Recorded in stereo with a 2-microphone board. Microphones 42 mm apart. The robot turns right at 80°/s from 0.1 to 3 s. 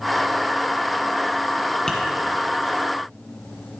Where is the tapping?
15° left (ahead or behind), 1.2 m; by 2.0 s 20° left (ahead or behind), 1.2 m.